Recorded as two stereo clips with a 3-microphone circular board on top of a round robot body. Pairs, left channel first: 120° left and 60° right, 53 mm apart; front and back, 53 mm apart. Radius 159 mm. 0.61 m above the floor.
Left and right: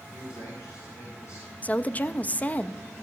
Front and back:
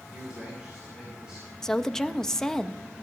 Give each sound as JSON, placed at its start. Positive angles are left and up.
{"t": 0.1, "sound": "a man speaking", "azimuth_deg": 110, "distance_m": 4.5}
{"t": 1.6, "sound": "a woman speaking", "azimuth_deg": 75, "distance_m": 0.6}